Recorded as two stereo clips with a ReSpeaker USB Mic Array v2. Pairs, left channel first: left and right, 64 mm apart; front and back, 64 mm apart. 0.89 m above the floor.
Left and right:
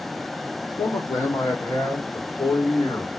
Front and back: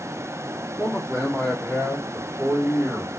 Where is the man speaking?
95° left, 1.8 m; by 3.1 s 110° left, 4 m.